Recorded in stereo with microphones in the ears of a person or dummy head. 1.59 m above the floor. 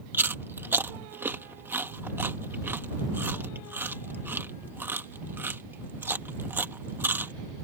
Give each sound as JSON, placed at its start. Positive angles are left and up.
{"t": 0.1, "sound": "chewing", "side_deg": -10}